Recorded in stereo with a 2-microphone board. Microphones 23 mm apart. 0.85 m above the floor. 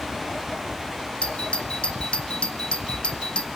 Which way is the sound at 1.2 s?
45° left (ahead or behind).